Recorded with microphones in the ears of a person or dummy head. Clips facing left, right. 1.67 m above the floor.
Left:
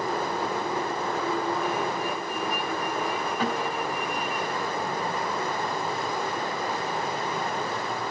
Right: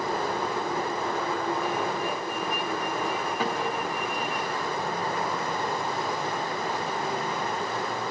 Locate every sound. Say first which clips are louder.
3.4 s a guitar: left 1 dB; centre (ahead or behind), 2.5 m